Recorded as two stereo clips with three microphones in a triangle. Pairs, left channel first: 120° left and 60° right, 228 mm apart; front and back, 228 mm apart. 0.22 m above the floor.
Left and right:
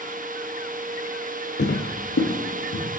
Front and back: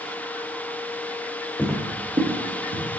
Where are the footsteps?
80° left, 0.6 m; by 2.8 s 135° left, 1.4 m.